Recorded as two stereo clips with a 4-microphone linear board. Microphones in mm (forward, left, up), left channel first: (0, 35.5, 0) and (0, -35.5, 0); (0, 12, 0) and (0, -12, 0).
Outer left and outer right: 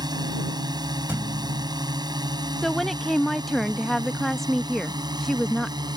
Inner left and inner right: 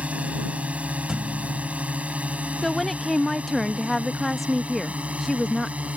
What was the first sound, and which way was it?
A drone, 75° right (ahead or behind).